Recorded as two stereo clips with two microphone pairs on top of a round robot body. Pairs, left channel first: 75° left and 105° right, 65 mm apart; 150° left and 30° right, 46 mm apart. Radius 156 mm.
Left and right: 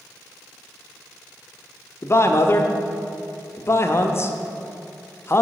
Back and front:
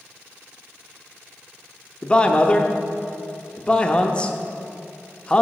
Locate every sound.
2.0 s a man speaking: 110° left, 0.7 m